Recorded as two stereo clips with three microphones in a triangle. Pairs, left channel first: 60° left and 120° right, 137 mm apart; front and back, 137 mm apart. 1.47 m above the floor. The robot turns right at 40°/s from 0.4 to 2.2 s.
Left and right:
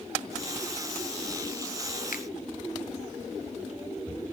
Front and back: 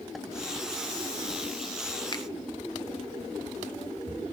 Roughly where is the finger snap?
Ahead left.